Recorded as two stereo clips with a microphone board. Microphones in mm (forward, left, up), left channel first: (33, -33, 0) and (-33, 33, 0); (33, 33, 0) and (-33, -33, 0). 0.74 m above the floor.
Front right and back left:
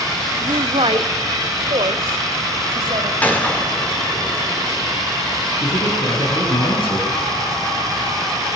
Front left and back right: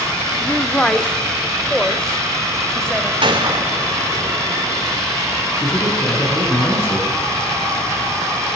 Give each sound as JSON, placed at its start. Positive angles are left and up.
{"t": 0.4, "sound": "a woman speaking", "azimuth_deg": 125, "distance_m": 1.3}
{"t": 3.2, "sound": "a gunshot", "azimuth_deg": -115, "distance_m": 3.0}
{"t": 5.6, "sound": "a man speaking", "azimuth_deg": -20, "distance_m": 7.0}